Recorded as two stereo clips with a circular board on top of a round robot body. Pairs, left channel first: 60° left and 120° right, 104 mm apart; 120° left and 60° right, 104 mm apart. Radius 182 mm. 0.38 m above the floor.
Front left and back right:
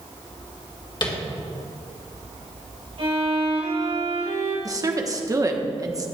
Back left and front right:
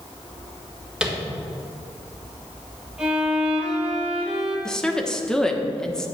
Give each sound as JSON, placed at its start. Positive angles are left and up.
{"t": 1.0, "sound": "tapping", "azimuth_deg": 20, "distance_m": 2.0}
{"t": 3.0, "sound": "a violin", "azimuth_deg": -145, "distance_m": 4.0}
{"t": 4.7, "sound": "a woman speaking", "azimuth_deg": -160, "distance_m": 1.3}